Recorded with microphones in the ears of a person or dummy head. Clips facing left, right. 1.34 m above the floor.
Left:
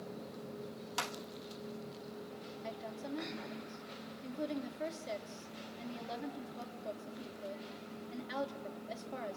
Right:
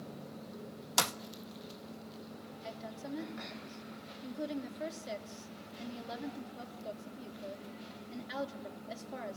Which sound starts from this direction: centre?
A woman speaking, at 2.6 s.